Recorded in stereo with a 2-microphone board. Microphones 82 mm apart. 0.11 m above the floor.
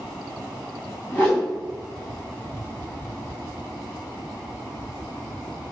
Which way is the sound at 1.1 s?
10° left (ahead or behind).